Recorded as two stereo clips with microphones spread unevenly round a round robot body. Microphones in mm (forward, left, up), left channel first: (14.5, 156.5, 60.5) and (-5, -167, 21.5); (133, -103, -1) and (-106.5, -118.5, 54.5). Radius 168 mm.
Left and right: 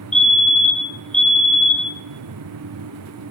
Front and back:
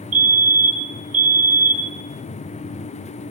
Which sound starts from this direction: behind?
A fire alarm, at 0.1 s.